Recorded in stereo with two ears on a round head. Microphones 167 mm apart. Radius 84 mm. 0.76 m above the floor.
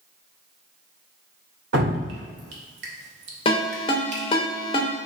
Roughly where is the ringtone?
Left.